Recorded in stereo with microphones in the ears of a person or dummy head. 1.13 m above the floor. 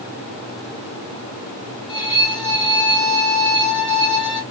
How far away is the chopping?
No chopping in this recording.